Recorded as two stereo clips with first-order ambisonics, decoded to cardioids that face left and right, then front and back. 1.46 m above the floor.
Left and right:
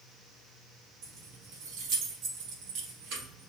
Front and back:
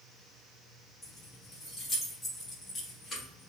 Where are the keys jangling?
75° right, 1.2 m.